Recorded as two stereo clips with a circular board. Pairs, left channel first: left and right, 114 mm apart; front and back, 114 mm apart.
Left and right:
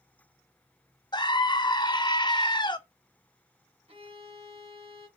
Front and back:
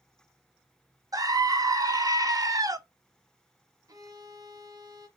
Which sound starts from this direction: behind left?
A scream, at 1.1 s.